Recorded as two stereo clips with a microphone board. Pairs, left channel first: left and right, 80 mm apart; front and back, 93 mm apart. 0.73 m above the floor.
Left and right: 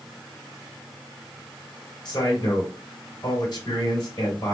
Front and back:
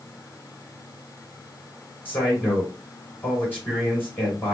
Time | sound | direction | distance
2.0 | a man speaking | 70° left | 2.5 m